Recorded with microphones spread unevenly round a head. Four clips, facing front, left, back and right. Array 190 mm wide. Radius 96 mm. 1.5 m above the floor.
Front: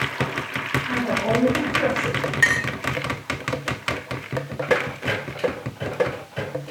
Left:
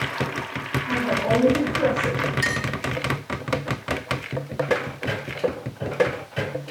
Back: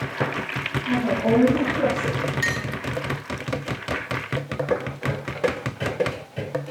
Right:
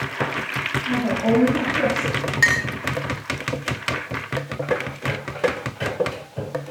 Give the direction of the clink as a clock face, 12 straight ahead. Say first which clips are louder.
Right 5 dB, front 5 dB; 1 o'clock.